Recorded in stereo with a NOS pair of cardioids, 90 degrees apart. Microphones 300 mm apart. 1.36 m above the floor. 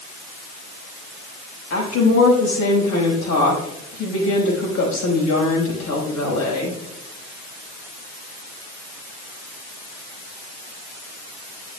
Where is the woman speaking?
70° left, 5 m.